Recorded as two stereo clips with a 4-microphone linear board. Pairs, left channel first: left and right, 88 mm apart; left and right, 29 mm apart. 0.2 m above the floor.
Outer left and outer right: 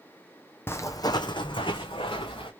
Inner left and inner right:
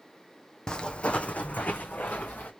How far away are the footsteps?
About 0.6 m.